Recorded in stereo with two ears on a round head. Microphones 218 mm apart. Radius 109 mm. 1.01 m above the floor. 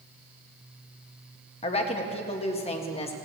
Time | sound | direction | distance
1.6 | a woman speaking | 25° left (ahead or behind) | 1.3 m